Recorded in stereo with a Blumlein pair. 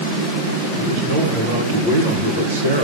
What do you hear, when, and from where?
0.7 s a man speaking: 60° right, 2 m